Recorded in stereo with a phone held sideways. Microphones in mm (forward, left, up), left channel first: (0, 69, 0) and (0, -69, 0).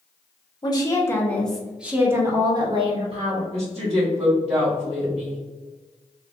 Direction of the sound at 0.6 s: 35° left (ahead or behind).